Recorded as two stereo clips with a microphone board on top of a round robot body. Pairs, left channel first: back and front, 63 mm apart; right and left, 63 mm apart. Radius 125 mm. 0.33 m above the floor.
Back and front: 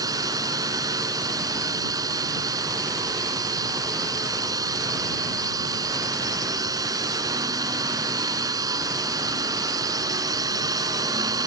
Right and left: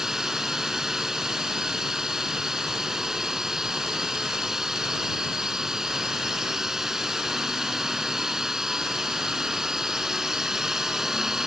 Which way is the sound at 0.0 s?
5° left.